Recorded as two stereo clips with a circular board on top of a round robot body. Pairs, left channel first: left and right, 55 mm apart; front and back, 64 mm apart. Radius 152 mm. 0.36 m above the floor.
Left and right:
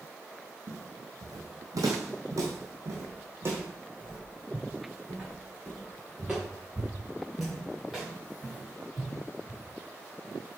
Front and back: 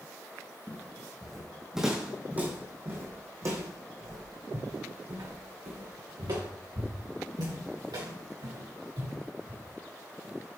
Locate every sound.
0.7 s footsteps: 75° right, 1.3 m; by 9.6 s straight behind, 4 m